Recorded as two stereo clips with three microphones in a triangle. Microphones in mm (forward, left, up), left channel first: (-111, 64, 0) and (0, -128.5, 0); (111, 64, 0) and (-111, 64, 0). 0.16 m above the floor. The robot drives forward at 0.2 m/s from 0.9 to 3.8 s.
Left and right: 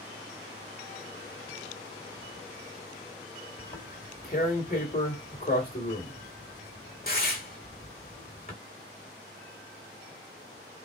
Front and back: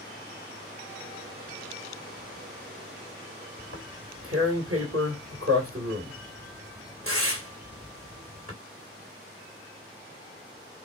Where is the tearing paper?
170° left, 1.7 m.